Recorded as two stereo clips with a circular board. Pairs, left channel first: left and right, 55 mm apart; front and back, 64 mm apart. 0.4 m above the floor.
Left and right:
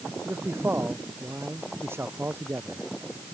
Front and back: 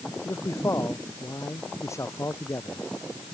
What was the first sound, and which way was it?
A man speaking, 45° right.